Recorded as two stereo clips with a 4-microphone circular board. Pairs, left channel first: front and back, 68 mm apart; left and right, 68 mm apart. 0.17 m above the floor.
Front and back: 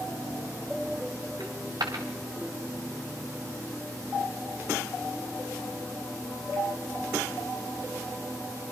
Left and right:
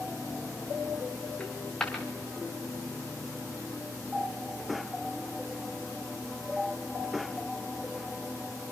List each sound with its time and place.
1.4 s a dropped coin: 170° left, 4 m